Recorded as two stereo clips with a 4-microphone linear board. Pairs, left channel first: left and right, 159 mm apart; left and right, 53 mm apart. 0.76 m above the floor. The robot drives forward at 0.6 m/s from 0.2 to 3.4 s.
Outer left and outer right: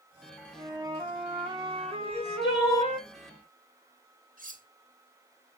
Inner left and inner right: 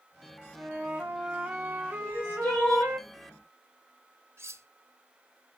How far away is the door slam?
I don't hear a door slam.